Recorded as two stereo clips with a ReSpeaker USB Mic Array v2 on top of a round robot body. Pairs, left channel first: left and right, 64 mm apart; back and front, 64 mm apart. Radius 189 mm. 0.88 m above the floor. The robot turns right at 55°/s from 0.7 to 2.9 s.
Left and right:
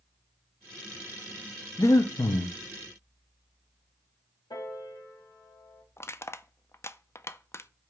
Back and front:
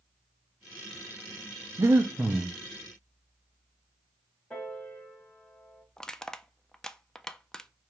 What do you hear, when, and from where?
1.8 s breathing: 45° left, 0.5 m; by 2.5 s 85° left, 0.5 m
4.5 s a piano: 105° left, 1.6 m
6.0 s crushing: 105° left, 0.5 m